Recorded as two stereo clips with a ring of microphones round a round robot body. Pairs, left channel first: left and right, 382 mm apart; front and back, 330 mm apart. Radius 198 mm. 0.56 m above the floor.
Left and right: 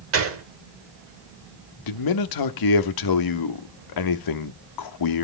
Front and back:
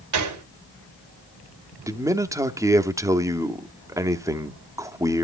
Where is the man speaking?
100° left, 1.0 m.